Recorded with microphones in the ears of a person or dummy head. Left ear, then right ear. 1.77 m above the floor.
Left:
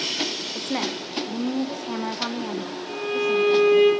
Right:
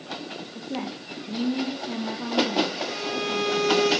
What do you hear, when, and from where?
0.6 s a woman speaking: 60° left (ahead or behind), 1.3 m; by 3.9 s 35° left (ahead or behind), 3.5 m
2.9 s a violin: 10° right (ahead or behind), 8.5 m